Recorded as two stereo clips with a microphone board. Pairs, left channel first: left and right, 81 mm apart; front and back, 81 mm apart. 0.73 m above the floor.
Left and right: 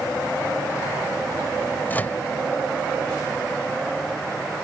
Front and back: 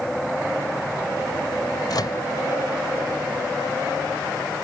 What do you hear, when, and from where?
1.9 s a microwave: 25° left